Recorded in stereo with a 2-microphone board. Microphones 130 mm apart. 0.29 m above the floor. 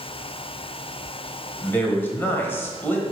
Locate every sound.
1.6 s a man speaking: 15° left (ahead or behind), 1.3 m